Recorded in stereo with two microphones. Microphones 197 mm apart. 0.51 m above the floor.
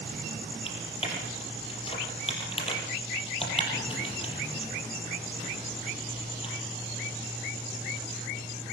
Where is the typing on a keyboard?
30° left (ahead or behind), 8 m.